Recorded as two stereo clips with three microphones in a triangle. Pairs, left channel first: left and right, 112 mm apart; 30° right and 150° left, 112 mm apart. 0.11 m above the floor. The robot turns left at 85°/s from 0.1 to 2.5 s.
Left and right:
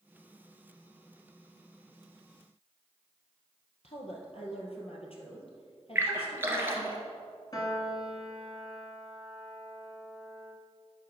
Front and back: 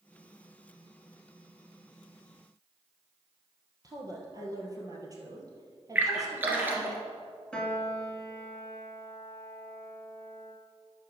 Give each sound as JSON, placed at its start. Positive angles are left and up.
{"t": 3.8, "sound": "a woman speaking", "azimuth_deg": 100, "distance_m": 2.0}
{"t": 6.0, "sound": "a splash", "azimuth_deg": -145, "distance_m": 1.5}
{"t": 7.5, "sound": "a piano", "azimuth_deg": 50, "distance_m": 1.6}